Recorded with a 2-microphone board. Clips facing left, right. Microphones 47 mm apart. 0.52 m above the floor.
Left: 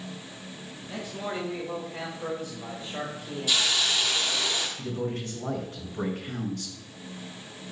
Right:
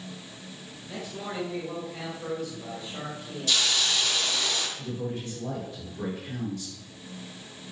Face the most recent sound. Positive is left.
turn(degrees=70)  # may be behind; listen again after turning